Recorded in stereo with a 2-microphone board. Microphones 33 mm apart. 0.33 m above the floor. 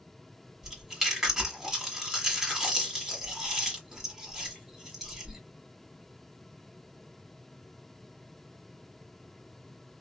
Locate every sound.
0.6 s chewing: 15° right (ahead or behind), 1.4 m